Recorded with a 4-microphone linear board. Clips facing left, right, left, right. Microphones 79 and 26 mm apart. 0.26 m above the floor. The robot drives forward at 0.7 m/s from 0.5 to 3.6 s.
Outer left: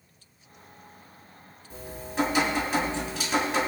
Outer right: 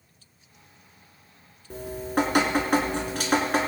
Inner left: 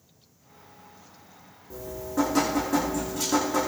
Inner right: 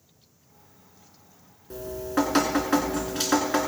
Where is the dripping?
70° right (ahead or behind), 3 m; by 3.7 s 60° right (ahead or behind), 3.5 m.